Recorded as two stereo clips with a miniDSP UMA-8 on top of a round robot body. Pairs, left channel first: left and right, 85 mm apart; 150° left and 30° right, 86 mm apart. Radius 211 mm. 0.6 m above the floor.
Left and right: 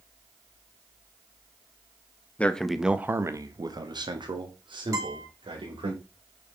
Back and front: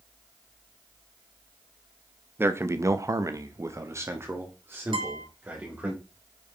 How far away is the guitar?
About 3.5 m.